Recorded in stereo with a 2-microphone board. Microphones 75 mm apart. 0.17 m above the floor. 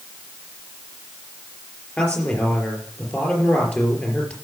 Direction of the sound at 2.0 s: 20° left (ahead or behind).